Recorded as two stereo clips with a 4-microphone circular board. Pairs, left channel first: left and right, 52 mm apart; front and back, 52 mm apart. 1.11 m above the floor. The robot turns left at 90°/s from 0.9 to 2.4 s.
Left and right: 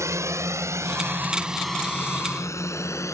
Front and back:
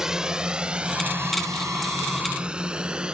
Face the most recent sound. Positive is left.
turn(degrees=105)